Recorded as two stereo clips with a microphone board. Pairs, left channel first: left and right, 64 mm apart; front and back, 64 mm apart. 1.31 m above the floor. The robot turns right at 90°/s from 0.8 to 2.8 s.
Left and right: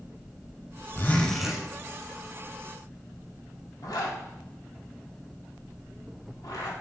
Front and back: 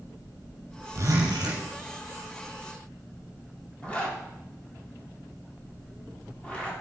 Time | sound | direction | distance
0.9 | a zipper | 145° left | 5 m
3.8 | a zipper | 70° left | 3 m